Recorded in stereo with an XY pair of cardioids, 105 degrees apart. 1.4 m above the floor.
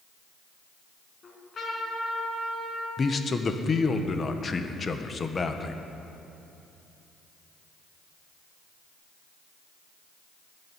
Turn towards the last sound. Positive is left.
turn(degrees=35)